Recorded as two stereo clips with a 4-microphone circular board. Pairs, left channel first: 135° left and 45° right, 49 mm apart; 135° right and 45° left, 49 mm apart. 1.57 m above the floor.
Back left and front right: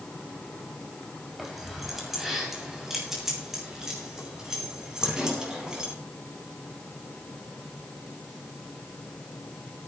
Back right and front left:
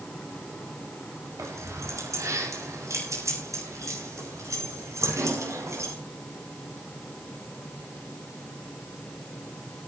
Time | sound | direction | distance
1.4 | keys jangling | 45° left | 6.5 m